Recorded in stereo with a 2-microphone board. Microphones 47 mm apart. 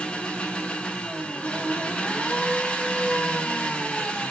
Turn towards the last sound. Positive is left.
turn(degrees=20)  # may be behind; listen again after turning